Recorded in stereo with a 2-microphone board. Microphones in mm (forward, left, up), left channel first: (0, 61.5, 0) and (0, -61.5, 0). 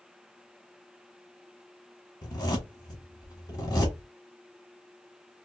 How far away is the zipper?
About 1.3 m.